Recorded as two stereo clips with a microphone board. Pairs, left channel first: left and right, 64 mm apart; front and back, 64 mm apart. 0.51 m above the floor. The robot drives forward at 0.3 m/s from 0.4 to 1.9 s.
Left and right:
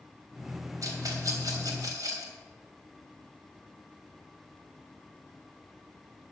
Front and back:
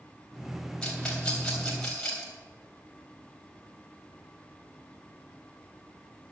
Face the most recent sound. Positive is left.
turn(degrees=-80)